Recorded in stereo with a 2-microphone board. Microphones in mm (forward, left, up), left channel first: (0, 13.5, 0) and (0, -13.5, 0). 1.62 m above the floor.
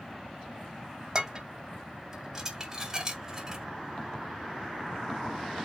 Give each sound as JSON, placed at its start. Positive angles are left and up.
{"t": 1.1, "sound": "dishes clattering", "side_deg": -20, "distance_m": 2.0}